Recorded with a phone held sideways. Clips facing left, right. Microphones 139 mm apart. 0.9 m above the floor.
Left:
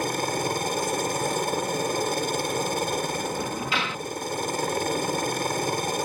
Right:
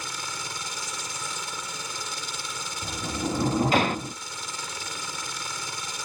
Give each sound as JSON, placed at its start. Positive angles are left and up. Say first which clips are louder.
{"t": 0.0, "sound": "a helicopter", "louder": "left 12 dB", "side_deg": 55}
{"t": 2.8, "sound": "a sliding door", "louder": "left 4 dB", "side_deg": -45}